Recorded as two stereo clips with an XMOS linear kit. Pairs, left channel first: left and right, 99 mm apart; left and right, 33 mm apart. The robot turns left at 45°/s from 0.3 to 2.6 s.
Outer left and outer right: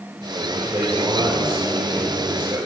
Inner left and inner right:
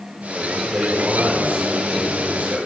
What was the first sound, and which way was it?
A man speaking, 25° right.